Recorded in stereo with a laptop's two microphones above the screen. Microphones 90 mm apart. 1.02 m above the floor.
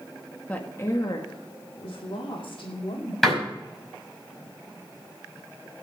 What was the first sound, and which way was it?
A woman speaking, 15° left (ahead or behind).